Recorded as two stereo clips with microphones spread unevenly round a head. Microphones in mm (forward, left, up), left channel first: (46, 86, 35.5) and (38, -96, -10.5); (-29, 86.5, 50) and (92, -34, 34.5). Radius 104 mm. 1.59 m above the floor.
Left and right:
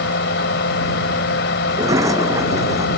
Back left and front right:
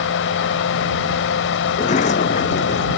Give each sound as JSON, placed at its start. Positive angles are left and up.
{"t": 0.0, "sound": "a fan", "azimuth_deg": 130}
{"t": 1.7, "sound": "a sliding door", "azimuth_deg": -170}